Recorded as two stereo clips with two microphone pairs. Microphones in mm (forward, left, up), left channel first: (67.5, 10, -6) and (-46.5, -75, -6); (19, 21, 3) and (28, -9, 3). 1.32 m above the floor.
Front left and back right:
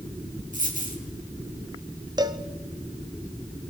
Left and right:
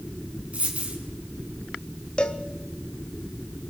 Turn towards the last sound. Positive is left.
turn(degrees=160)